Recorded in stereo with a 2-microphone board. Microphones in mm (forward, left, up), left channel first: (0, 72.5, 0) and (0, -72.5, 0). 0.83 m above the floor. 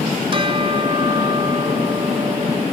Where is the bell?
40° right (ahead or behind).